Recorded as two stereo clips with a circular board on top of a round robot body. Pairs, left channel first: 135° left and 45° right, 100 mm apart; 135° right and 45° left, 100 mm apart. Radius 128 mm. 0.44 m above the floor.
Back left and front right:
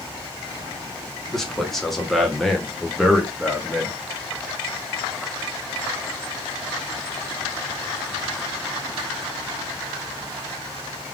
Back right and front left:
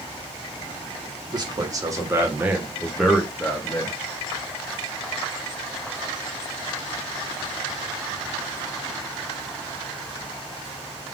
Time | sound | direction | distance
1.3 | a man speaking | 50° left | 1.7 m